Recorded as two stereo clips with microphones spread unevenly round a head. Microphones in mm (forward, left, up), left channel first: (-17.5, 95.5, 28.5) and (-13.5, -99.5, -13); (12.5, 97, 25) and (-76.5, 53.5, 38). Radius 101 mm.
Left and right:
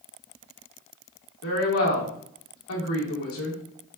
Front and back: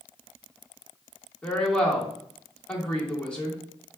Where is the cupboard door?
No cupboard door in this recording.